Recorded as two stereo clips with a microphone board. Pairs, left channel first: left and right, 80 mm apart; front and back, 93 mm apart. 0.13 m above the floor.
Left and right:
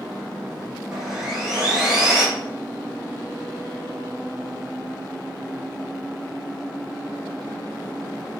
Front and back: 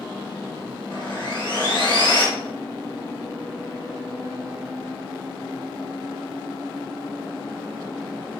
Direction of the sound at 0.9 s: 5° right.